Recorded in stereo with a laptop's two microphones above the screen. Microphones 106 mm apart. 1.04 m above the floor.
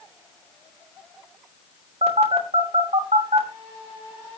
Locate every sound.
2.0 s a phone buzzing: 85° right, 3.5 m